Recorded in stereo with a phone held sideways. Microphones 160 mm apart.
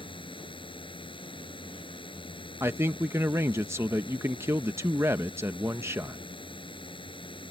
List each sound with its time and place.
0.0 s a drone: 35° left (ahead or behind)
2.6 s a man speaking: 15° right (ahead or behind)